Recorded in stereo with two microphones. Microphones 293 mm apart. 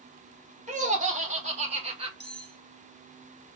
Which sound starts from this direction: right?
Laughter, at 0.7 s.